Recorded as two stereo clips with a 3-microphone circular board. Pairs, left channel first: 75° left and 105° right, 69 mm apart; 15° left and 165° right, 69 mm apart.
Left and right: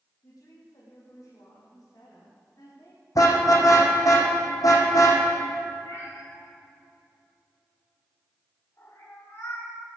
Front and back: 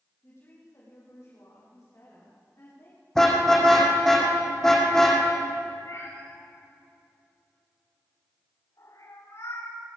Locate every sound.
0.2 s a woman speaking: 60° left, 6 m; by 3.0 s 50° left, 9.5 m
3.1 s a car horn: 100° left, 3.5 m
5.8 s a cat meowing: 35° left, 6.5 m